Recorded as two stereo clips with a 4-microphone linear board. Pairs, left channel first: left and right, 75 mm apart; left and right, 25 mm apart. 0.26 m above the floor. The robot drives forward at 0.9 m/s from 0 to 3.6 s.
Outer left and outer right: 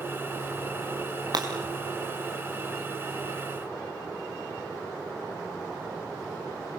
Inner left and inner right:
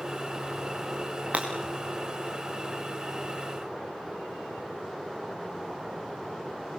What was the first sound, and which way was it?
Breaking glass, 65° right (ahead or behind).